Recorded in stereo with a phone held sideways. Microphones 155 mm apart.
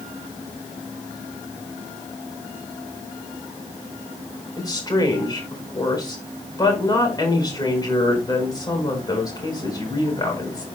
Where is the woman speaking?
25° left (ahead or behind), 4.5 m.